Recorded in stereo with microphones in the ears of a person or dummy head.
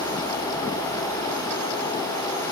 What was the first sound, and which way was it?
Only background noise.